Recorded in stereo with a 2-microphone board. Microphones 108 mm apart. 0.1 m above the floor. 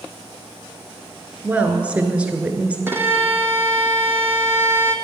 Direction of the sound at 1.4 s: 10° right (ahead or behind).